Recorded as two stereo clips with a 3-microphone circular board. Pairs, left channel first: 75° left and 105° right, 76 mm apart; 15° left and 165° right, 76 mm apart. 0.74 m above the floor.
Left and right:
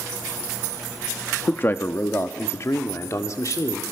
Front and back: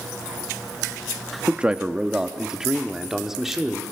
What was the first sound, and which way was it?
A man speaking, 125° left.